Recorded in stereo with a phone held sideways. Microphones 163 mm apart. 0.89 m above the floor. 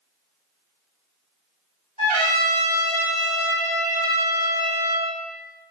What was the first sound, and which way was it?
A trumpet, 40° left (ahead or behind).